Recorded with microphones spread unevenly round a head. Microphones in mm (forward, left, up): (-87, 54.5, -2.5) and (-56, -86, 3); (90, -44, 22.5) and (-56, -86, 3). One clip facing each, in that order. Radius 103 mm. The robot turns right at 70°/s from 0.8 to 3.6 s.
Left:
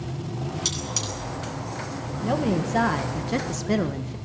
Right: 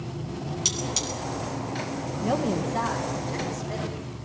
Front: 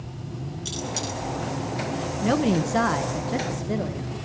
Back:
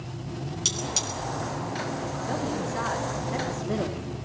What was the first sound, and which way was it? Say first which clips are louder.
Cutlery clinking: right 1 dB, front 4 dB; 150° right.